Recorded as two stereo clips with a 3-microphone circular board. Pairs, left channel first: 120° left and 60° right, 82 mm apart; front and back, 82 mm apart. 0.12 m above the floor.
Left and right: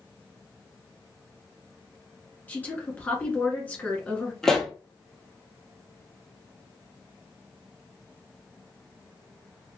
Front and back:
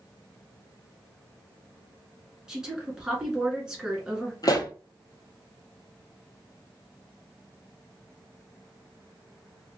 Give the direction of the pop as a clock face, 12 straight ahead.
11 o'clock.